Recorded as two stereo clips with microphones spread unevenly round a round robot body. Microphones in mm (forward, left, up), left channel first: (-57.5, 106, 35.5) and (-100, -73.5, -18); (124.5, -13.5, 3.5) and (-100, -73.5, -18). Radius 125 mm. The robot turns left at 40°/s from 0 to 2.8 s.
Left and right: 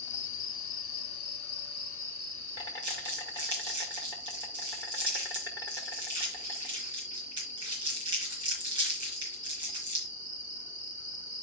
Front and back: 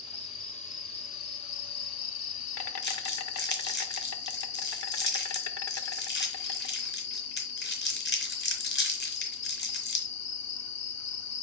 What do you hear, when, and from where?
0.0 s an insect: 105° left, 0.9 m; by 11.4 s 5° right, 0.9 m
2.8 s crumpling: 30° right, 3.5 m